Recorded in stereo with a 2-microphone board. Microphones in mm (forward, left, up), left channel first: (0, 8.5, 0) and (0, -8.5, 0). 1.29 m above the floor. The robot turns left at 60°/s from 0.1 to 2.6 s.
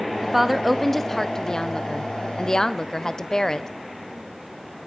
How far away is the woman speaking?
About 0.5 m.